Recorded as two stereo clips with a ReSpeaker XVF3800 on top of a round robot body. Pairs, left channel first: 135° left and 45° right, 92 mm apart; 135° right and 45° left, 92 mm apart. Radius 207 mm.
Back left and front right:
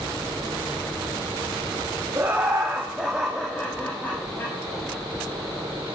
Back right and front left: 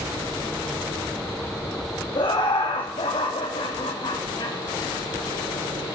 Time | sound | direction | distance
2.1 | laughter | 110° right | 2 m